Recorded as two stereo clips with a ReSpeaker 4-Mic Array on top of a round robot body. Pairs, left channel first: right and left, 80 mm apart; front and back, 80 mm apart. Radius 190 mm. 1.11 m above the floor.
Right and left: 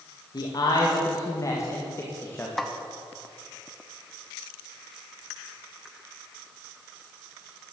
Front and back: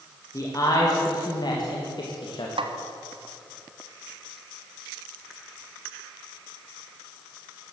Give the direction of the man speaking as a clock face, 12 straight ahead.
2 o'clock.